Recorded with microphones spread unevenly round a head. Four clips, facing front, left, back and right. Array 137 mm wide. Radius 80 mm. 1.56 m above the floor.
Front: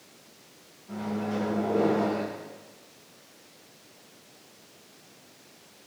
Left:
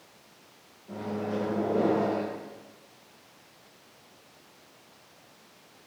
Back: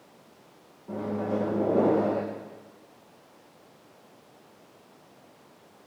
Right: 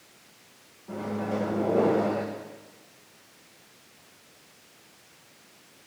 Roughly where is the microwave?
Behind.